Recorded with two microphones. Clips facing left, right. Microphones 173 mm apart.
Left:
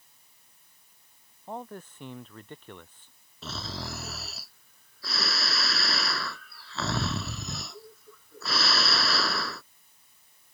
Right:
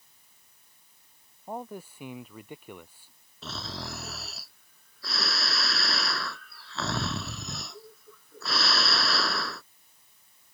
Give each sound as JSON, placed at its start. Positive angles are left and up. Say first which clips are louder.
{"t": 1.5, "sound": "a man speaking", "louder": "right 1 dB", "side_deg": -10}
{"t": 3.4, "sound": "snoring", "louder": "left 1 dB", "side_deg": 0}